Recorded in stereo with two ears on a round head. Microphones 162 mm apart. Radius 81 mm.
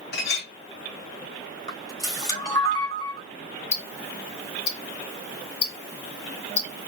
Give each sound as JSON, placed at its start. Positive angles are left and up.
{"t": 0.1, "sound": "a clink", "side_deg": 65, "distance_m": 1.6}
{"t": 1.7, "sound": "a camera shutter", "side_deg": 20, "distance_m": 3.0}
{"t": 3.7, "sound": "ticking", "side_deg": 60, "distance_m": 0.9}